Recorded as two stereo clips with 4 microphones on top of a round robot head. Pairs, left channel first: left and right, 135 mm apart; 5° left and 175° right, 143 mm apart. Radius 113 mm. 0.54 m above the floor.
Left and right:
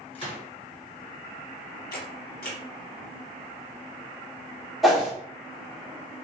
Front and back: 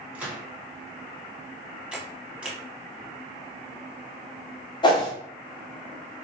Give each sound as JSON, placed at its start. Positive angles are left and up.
{"t": 0.1, "sound": "a gunshot", "azimuth_deg": 115, "distance_m": 1.6}
{"t": 1.9, "sound": "a camera shutter", "azimuth_deg": 105, "distance_m": 0.8}
{"t": 4.8, "sound": "a whoosh", "azimuth_deg": 0, "distance_m": 1.0}